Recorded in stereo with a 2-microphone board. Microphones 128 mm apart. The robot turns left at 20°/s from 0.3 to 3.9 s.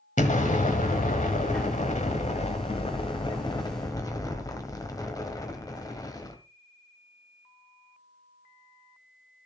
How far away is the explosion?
About 1.4 m.